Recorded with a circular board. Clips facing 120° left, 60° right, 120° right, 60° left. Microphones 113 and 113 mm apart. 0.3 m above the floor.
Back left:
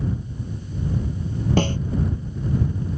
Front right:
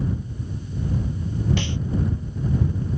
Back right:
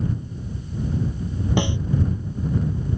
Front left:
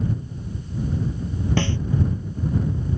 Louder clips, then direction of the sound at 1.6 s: Back left 7 dB, back right 1 dB; 165° left.